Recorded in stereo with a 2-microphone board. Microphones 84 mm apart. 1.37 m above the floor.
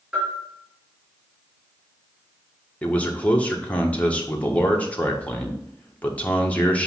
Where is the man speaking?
15° left (ahead or behind), 1.4 m.